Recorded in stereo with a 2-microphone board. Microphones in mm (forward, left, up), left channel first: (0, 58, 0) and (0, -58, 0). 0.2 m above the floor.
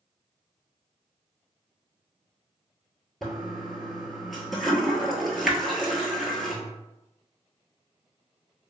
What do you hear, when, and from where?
3.2 s a toilet flushing: centre (ahead or behind), 0.7 m